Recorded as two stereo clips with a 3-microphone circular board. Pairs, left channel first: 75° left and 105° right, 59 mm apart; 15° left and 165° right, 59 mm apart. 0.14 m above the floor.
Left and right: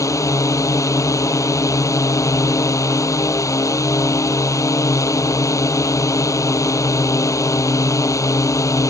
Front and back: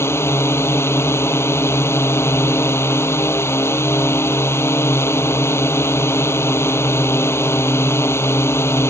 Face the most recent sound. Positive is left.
turn(degrees=55)